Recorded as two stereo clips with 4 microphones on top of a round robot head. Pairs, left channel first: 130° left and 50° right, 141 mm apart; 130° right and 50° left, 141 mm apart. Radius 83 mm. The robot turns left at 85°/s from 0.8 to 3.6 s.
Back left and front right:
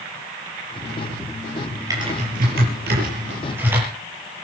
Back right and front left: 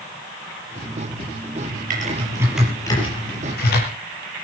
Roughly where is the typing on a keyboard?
Ahead.